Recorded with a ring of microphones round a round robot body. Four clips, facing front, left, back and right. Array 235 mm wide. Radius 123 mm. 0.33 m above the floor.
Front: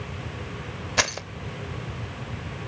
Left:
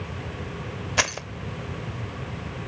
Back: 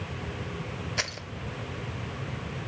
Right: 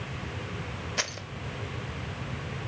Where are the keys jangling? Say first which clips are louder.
Left 11 dB, front 13 dB; 50° left, 0.8 m.